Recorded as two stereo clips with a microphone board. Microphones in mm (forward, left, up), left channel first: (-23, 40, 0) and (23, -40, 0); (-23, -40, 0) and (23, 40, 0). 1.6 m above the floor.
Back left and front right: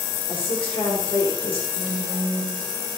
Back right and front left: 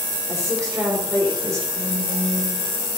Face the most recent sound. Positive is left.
turn(degrees=50)